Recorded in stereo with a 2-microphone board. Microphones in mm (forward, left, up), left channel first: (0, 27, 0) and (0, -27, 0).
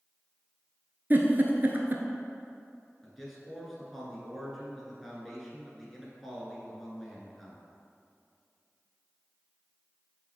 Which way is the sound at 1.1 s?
40° right (ahead or behind).